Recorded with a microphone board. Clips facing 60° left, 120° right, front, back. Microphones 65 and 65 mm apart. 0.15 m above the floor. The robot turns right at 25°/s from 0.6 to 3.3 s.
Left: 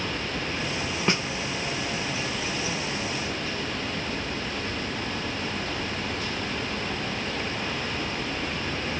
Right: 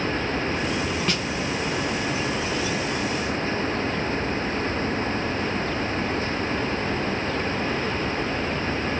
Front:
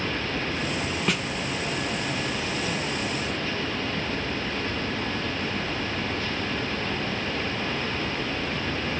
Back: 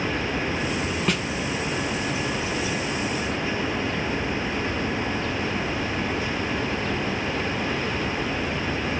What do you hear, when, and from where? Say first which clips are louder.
1.1 s a snare drum: left 1 dB, back 1 dB; 85° left, 0.6 m; by 1.3 s 90° left, 0.6 m